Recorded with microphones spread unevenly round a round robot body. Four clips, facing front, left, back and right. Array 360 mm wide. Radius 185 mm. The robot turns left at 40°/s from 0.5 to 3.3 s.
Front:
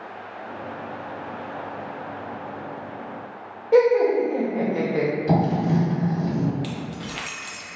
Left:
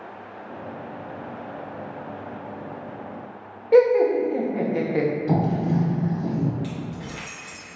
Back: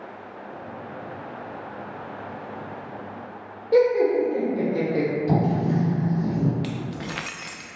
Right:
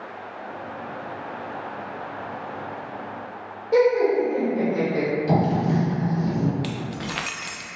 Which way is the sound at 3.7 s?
70° left.